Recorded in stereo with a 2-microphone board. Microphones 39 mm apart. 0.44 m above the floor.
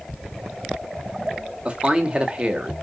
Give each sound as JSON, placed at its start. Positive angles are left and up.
{"t": 1.6, "sound": "a man speaking", "side_deg": -25, "distance_m": 1.3}